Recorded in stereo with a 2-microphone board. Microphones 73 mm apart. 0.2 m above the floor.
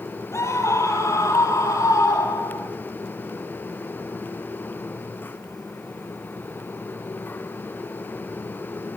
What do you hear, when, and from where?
0.3 s a scream: 40° left (ahead or behind), 5 m; by 2.7 s 50° left (ahead or behind), 7.5 m